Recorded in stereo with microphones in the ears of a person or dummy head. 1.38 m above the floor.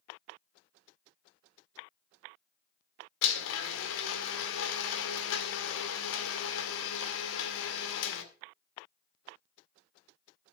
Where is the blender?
70° left (ahead or behind), 2.0 m.